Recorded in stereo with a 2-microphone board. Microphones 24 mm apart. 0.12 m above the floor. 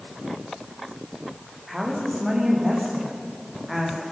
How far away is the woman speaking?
About 6.5 m.